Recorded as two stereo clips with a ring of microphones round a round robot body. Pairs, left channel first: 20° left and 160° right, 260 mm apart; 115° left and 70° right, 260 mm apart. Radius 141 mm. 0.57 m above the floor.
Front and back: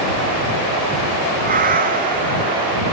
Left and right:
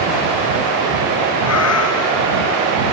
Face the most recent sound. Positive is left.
turn(degrees=145)